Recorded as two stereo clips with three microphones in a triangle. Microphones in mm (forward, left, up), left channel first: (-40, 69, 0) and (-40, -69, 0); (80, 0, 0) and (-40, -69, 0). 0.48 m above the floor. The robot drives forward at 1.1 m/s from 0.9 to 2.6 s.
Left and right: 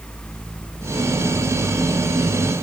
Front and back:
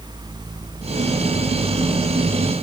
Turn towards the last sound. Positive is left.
No sound to turn to.